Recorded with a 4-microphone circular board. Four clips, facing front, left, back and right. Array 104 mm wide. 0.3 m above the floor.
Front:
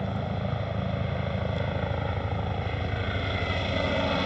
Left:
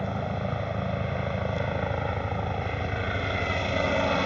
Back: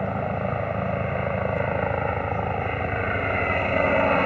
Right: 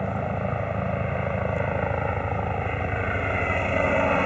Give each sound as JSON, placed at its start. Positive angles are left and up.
{"t": 0.0, "sound": "a helicopter", "azimuth_deg": -155}